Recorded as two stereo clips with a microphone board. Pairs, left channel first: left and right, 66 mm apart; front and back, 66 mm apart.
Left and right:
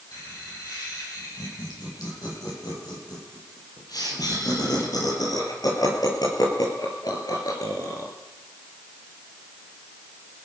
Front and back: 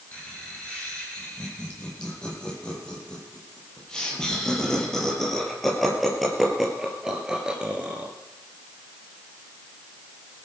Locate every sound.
0.1 s laughter: 70° left, 8.5 m; by 8.1 s 110° left, 3.5 m